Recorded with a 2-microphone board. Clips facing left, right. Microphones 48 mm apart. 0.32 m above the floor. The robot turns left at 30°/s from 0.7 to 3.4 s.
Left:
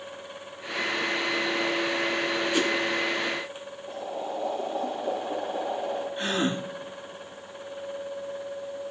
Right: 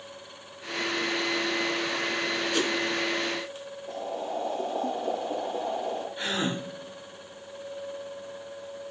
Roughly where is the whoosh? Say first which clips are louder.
Left 2 dB; centre.